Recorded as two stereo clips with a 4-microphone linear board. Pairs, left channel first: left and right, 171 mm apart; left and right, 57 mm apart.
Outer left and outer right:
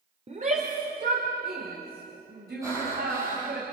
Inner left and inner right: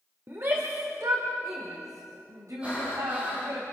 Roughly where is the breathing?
Centre.